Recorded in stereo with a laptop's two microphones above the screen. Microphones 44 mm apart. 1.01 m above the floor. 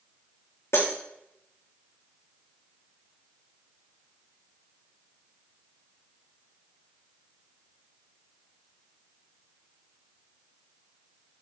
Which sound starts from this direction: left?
Breaking glass, at 0.7 s.